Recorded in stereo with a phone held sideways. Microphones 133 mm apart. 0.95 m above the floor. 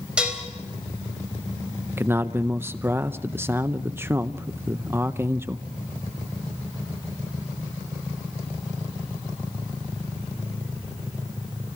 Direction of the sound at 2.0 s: 20° right (ahead or behind).